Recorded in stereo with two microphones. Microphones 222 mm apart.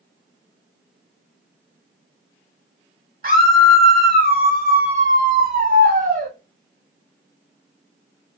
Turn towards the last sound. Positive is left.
turn(degrees=-40)  # may be behind; listen again after turning